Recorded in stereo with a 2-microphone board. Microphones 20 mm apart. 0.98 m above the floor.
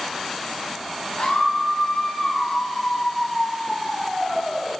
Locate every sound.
1.2 s a scream: 80° left, 3 m; by 4.7 s 45° left (ahead or behind), 4.5 m